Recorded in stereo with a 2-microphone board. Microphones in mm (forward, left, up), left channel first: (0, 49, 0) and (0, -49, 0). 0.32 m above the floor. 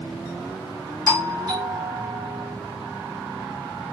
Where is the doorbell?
35° right (ahead or behind), 3.5 m.